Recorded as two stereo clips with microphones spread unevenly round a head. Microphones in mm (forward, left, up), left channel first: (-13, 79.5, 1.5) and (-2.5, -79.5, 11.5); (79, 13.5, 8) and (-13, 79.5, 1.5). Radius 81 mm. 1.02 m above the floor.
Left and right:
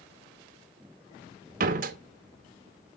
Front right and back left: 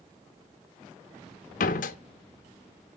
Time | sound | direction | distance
1.6 | a door slam | 45° right | 0.9 m